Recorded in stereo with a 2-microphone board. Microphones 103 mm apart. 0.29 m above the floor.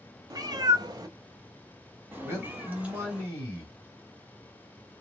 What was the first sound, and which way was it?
A cat meowing, 35° right (ahead or behind).